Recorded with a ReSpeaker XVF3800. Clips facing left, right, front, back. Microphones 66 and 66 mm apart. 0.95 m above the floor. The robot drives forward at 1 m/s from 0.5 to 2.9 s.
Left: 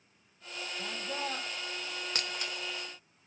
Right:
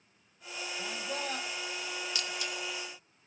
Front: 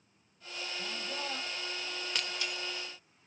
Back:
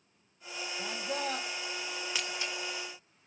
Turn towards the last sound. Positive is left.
turn(degrees=145)